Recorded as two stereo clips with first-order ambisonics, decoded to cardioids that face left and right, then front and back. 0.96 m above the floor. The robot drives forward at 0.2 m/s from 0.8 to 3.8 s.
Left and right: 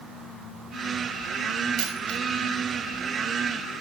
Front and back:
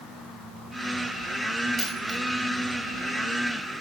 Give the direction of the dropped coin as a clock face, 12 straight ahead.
4 o'clock.